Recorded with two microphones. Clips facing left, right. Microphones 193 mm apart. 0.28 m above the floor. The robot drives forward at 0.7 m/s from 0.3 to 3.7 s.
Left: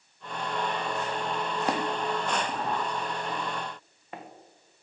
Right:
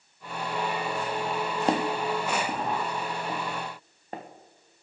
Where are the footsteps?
25° right (ahead or behind), 0.6 m; by 4.2 s 35° right (ahead or behind), 1.2 m.